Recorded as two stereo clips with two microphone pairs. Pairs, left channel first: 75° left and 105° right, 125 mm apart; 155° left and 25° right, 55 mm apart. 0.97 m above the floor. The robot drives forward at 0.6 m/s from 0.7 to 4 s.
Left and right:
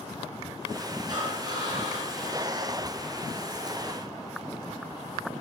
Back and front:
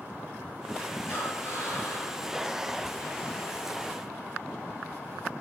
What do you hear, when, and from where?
1.1 s breathing: 165° right, 6 m